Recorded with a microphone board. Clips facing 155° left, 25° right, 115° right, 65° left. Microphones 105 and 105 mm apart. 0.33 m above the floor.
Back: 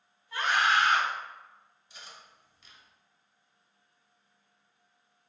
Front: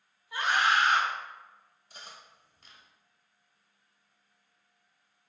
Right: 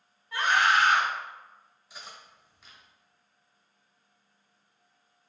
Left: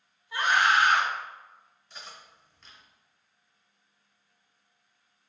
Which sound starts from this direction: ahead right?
Cutlery clinking, at 1.9 s.